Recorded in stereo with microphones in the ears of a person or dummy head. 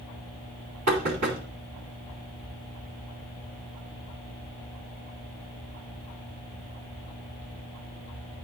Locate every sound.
0.9 s knocking: 85° right, 3.5 m